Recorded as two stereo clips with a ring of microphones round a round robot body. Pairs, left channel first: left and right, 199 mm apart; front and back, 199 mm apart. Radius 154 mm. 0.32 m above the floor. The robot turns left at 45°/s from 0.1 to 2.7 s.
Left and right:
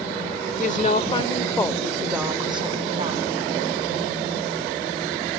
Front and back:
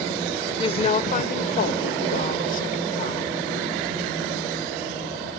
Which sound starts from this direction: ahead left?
A woman speaking, at 0.6 s.